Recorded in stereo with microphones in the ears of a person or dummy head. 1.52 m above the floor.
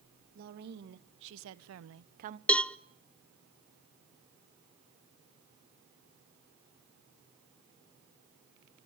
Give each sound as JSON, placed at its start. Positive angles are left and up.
{"t": 0.3, "sound": "a woman speaking", "side_deg": -55, "distance_m": 2.5}
{"t": 2.5, "sound": "a cowbell", "side_deg": 5, "distance_m": 0.6}